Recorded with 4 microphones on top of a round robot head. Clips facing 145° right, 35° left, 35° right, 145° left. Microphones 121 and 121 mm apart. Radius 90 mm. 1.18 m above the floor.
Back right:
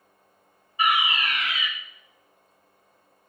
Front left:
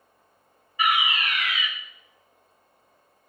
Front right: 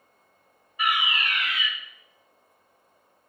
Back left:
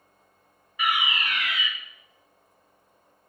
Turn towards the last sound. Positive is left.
turn(degrees=150)